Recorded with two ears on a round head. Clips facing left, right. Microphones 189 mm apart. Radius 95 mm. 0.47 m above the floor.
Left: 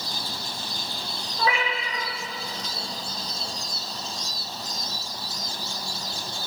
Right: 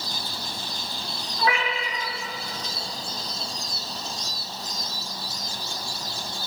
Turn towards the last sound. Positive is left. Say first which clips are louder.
# right 1 dB
turn(degrees=85)